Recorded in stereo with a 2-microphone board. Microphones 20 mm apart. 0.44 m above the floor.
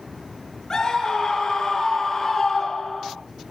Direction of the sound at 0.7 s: 30° left (ahead or behind).